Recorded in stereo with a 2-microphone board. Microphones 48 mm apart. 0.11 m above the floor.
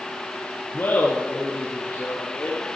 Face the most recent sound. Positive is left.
turn(degrees=40)  # may be behind; listen again after turning